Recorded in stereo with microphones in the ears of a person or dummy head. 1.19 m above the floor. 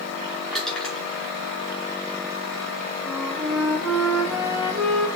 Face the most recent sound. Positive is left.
turn(degrees=-5)  # may be behind; listen again after turning